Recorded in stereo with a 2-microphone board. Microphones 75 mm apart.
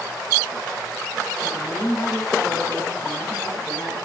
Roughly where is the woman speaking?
Centre.